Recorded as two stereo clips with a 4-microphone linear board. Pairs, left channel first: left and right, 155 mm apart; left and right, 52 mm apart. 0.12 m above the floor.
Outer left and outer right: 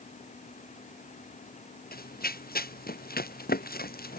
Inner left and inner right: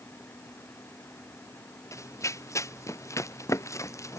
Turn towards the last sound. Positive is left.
turn(degrees=85)